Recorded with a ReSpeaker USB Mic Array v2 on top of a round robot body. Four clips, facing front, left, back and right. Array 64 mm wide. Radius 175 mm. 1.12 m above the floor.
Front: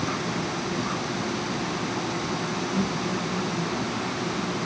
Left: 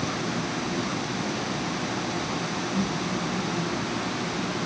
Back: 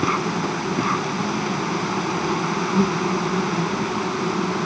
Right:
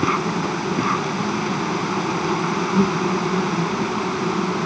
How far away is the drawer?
No drawer in this recording.